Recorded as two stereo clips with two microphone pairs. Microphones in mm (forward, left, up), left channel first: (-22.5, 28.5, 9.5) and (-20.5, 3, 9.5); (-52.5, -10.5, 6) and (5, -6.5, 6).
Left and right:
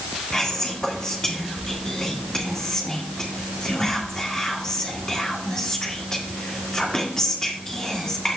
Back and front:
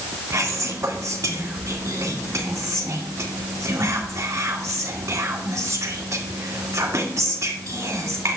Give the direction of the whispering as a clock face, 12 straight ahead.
11 o'clock.